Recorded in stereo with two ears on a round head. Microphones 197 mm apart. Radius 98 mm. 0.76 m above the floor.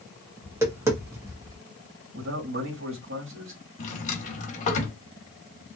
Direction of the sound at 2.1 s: 65° right (ahead or behind).